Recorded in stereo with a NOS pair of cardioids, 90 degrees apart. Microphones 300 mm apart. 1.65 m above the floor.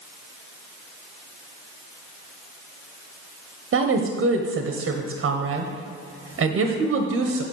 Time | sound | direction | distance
3.7 | a woman speaking | 45° right | 1.2 m